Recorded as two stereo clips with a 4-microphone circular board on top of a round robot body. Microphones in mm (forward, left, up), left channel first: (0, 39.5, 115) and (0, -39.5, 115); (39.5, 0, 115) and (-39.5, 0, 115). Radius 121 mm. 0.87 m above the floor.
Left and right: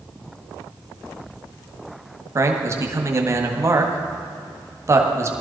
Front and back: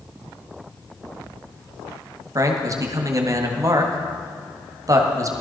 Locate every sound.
2.4 s a man speaking: 140° right, 1.8 m